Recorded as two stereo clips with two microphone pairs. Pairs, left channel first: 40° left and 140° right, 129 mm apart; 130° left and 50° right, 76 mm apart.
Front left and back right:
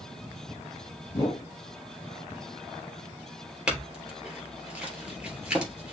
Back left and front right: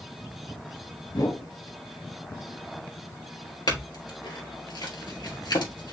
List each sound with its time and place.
1.1 s a whoosh: 100° left, 2.5 m
3.7 s a clink: 135° left, 3 m